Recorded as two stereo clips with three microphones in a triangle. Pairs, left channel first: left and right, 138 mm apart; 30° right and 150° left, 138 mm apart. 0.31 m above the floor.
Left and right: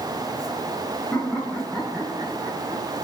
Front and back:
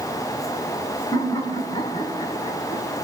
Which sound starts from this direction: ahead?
Laughter, at 1.1 s.